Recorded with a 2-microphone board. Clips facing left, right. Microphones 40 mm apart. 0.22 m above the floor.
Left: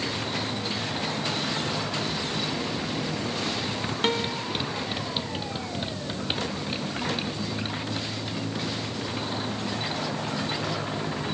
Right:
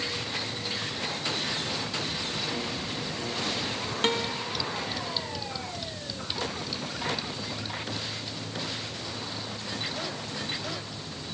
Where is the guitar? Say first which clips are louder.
Left 1 dB; 5° left (ahead or behind).